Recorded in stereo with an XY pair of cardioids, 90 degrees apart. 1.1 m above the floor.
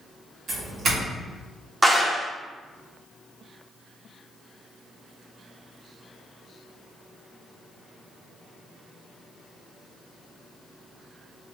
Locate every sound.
0.5 s a doorbell: 65° right, 1.5 m
1.8 s a clap: 20° right, 0.8 m